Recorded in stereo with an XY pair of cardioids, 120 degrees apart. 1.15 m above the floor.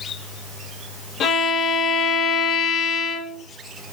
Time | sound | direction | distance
1.2 | a violin | 65° left | 2 m